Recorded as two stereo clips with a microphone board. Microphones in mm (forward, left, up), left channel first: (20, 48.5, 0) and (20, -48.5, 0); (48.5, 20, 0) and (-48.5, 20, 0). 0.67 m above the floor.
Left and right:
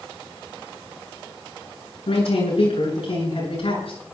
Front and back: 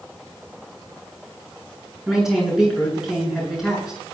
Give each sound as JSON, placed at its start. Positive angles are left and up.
{"t": 2.1, "sound": "a man speaking", "azimuth_deg": 95, "distance_m": 9.5}